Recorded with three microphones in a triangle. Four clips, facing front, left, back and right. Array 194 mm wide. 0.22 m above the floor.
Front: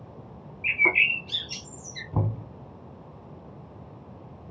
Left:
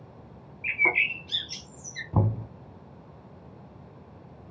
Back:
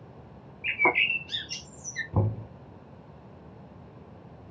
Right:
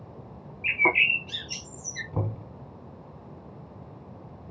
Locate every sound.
0.6 s a bird: 140° right, 1.0 m
2.1 s knocking: 95° left, 2 m